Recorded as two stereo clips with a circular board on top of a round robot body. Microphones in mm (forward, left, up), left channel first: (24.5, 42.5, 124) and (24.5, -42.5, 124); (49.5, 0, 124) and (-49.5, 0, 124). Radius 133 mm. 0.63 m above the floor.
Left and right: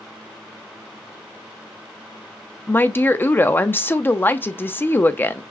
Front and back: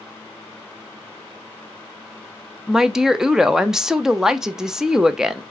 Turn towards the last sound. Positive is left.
turn(degrees=105)